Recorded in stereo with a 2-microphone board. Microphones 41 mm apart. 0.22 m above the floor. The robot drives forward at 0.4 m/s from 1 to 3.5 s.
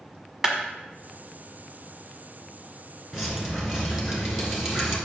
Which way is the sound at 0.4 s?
5° right (ahead or behind).